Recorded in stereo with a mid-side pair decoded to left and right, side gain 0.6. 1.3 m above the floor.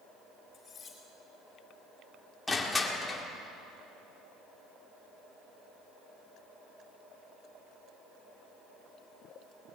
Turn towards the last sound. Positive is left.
turn(degrees=15)